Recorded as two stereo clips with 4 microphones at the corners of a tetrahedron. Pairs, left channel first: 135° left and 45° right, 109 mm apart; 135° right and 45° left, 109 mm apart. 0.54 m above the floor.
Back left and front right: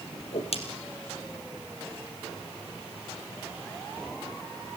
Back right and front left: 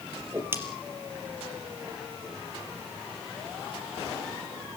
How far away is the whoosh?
About 3.5 m.